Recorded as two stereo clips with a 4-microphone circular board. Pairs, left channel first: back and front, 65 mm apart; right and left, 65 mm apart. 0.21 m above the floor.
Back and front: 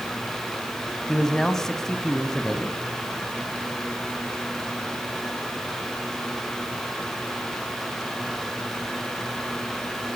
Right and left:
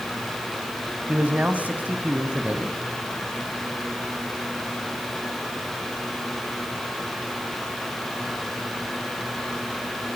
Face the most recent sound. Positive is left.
turn(degrees=105)